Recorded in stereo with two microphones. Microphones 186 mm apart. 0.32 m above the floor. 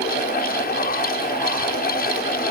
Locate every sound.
Only background noise.